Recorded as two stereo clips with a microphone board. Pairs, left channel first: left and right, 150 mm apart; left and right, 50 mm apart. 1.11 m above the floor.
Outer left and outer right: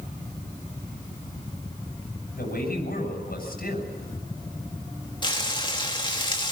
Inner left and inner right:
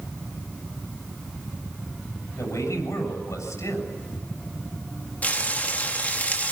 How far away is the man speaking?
About 7 m.